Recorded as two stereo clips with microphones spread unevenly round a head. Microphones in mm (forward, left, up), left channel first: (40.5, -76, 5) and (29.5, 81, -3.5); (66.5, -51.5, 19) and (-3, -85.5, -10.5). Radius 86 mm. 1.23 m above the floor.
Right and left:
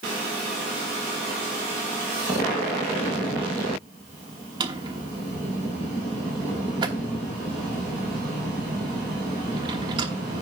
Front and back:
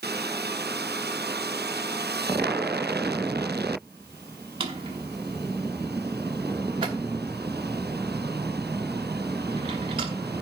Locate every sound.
4.6 s a drawer: 155° left, 1.0 m